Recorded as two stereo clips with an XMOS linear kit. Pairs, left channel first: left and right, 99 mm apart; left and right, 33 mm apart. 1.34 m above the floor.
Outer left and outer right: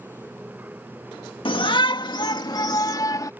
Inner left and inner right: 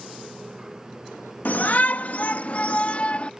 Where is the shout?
65° left (ahead or behind); by 3.3 s 40° left (ahead or behind).